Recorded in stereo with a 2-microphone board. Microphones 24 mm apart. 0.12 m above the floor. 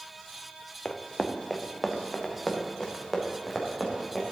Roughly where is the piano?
No piano in this recording.